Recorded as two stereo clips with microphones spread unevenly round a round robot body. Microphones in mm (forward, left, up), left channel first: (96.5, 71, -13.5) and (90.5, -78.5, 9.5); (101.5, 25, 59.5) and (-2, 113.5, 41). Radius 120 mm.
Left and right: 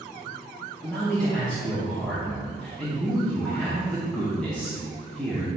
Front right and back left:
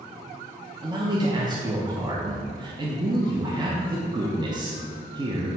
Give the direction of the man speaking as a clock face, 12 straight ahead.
7 o'clock.